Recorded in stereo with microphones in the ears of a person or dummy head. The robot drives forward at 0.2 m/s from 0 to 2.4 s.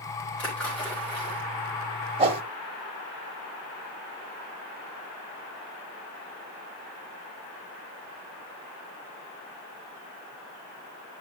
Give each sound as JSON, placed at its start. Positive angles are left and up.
{"t": 0.4, "sound": "a splash", "side_deg": 5, "distance_m": 4.0}
{"t": 2.2, "sound": "a whoosh", "side_deg": -30, "distance_m": 0.7}